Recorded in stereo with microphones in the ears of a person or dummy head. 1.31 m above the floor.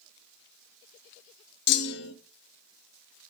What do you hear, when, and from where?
1.7 s a clunk: 50° left (ahead or behind), 0.6 m